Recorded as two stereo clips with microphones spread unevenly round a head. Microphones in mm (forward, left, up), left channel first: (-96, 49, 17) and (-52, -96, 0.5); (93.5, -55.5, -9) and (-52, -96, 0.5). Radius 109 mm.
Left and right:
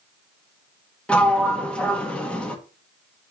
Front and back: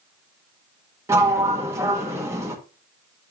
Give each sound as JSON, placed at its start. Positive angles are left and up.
{"t": 1.1, "sound": "a sliding door", "azimuth_deg": 160, "distance_m": 1.2}